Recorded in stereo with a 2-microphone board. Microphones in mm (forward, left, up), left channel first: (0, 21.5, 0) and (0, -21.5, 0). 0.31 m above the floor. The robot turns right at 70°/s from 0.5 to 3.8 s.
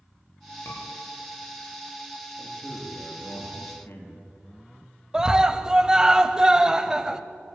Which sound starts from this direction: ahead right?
A man speaking, at 2.4 s.